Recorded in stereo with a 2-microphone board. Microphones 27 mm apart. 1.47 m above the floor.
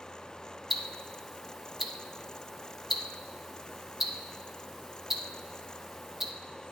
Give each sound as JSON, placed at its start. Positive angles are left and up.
{"t": 0.7, "sound": "ticking", "side_deg": -15, "distance_m": 0.5}